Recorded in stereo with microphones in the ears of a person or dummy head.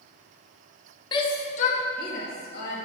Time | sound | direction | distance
1.1 | a shout | 25° left (ahead or behind) | 0.6 m